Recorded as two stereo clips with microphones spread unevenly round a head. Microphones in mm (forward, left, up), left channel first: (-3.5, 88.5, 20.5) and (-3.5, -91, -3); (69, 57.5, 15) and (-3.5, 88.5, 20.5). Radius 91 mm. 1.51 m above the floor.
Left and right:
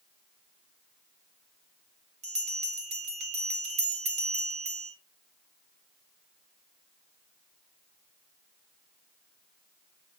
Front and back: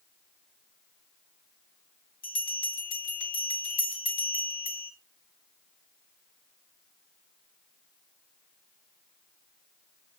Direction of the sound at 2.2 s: 35° right.